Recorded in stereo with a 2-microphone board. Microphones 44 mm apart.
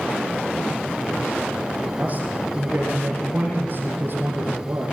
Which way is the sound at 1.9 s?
25° right (ahead or behind).